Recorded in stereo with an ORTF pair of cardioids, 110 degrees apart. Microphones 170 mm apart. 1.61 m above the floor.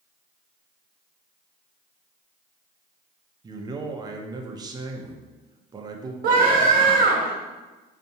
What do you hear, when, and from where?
3.4 s a man speaking: 25° right, 0.6 m
6.2 s a scream: 60° right, 1.1 m